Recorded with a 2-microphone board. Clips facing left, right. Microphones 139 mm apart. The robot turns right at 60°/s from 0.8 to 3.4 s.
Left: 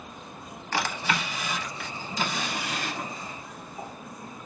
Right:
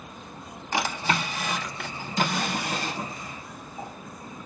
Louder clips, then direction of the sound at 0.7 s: Right 2 dB; 20° right (ahead or behind).